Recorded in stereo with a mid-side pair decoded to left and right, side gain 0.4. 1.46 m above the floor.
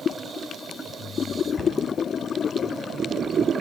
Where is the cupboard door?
40° left, 9.5 m.